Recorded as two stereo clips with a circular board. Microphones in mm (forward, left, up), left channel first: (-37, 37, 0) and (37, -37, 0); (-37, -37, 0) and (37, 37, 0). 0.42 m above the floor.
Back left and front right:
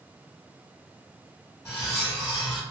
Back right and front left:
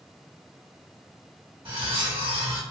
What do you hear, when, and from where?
1.6 s cutlery clinking: 75° left, 1.6 m